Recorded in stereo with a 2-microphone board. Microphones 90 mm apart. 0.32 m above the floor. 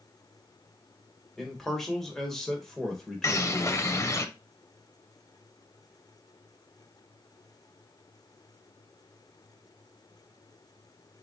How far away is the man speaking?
About 1.3 m.